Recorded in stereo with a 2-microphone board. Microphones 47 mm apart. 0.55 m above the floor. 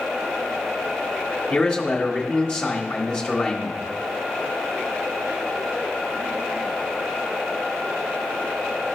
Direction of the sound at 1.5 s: 30° left (ahead or behind).